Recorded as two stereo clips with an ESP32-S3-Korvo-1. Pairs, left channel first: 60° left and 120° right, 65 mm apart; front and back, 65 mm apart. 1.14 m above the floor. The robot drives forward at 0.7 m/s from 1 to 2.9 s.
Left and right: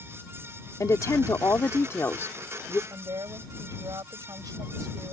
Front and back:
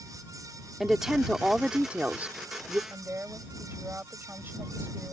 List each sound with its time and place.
0.8 s a woman speaking: 95° left; by 2.8 s 120° left
2.9 s a woman speaking: 120° right